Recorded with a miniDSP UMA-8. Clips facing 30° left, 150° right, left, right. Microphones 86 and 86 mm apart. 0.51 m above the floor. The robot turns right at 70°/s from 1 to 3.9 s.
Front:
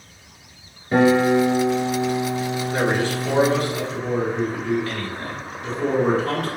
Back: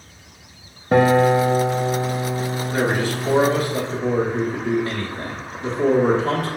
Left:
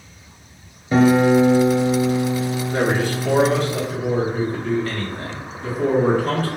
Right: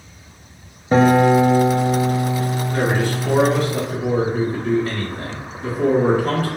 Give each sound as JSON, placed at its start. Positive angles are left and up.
{"t": 0.9, "sound": "a guitar", "azimuth_deg": -140, "distance_m": 0.6}
{"t": 2.7, "sound": "a man speaking", "azimuth_deg": 130, "distance_m": 0.9}